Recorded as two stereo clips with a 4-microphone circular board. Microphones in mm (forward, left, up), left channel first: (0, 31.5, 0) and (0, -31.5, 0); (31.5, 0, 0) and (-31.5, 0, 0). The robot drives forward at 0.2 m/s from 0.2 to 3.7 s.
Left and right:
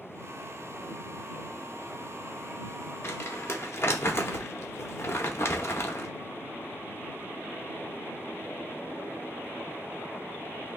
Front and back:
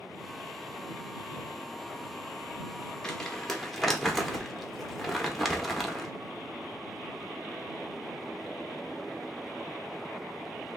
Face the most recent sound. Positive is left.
turn(degrees=90)